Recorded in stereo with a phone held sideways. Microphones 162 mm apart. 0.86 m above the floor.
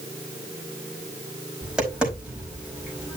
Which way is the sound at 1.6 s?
5° right (ahead or behind).